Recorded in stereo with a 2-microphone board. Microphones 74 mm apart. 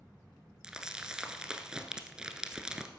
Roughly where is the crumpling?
Centre.